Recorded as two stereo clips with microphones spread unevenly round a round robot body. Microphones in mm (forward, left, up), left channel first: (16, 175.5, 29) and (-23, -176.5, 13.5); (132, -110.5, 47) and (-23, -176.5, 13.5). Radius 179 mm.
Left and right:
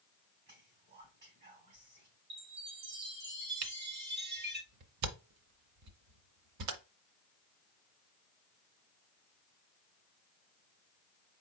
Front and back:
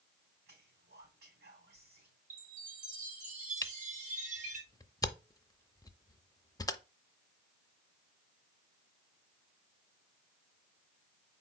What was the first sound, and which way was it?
Whispering, 155° right.